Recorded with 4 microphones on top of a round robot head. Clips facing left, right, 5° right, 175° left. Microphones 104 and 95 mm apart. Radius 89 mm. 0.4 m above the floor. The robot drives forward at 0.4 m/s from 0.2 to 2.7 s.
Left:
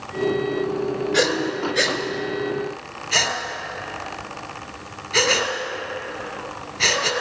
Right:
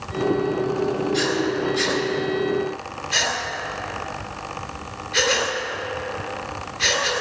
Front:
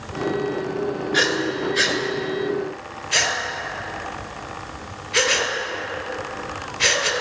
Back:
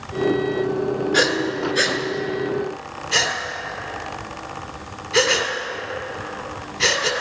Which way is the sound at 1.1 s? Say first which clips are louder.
Left 1 dB, front 1 dB; 120° left.